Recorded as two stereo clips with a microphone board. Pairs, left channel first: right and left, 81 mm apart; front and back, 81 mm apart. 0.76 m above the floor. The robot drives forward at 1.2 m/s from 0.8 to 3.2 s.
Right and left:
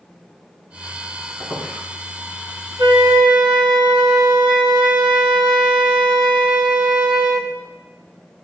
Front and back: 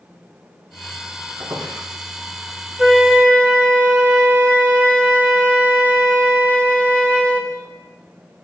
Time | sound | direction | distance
1.4 | a squeak | 155° left | 5.5 m
2.8 | a flute | 95° left | 1.9 m